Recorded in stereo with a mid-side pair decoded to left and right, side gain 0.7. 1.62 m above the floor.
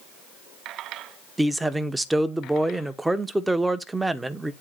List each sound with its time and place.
1.4 s a man speaking: 10° right, 1.1 m